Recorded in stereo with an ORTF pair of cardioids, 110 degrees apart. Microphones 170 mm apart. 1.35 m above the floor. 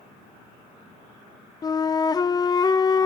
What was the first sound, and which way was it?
A flute, 25° left.